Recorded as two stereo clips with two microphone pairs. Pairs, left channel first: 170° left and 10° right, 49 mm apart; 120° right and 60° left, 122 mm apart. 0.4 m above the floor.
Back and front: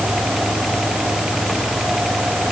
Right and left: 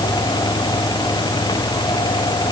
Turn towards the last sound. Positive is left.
No sound to turn to.